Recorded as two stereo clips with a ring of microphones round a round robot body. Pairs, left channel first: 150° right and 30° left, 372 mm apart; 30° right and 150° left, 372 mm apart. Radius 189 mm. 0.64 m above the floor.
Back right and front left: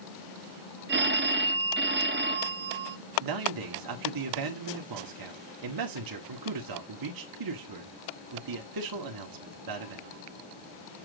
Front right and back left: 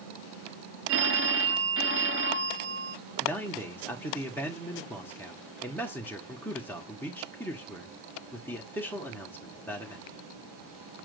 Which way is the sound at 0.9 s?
95° left.